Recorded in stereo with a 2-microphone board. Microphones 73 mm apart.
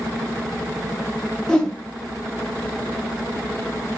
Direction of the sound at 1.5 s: 10° left (ahead or behind).